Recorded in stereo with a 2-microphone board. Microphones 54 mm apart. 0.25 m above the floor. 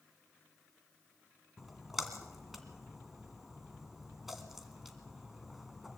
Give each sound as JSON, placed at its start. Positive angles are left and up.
{"t": 1.6, "sound": "a splash", "side_deg": -5, "distance_m": 2.0}